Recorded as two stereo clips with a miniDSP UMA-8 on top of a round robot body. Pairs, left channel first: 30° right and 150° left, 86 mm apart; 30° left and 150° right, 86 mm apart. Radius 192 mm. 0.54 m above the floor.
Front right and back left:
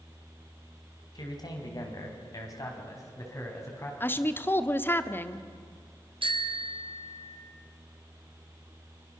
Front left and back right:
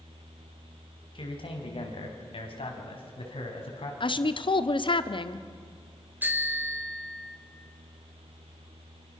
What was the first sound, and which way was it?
A man speaking, 10° left.